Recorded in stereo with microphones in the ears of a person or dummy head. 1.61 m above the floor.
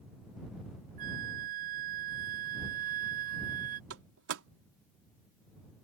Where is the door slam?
65° right (ahead or behind).